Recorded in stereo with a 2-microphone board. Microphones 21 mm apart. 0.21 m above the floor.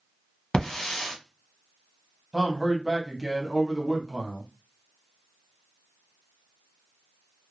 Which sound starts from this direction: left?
A hiss, at 0.5 s.